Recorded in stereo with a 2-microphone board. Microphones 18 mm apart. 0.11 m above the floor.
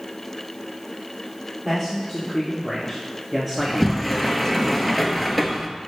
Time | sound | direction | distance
1.6 | a man speaking | 20° right (ahead or behind) | 3.5 m
3.6 | a sliding door | 5° right (ahead or behind) | 0.8 m